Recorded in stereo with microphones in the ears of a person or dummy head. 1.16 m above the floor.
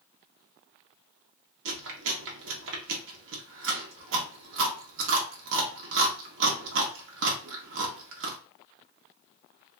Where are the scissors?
I don't hear scissors.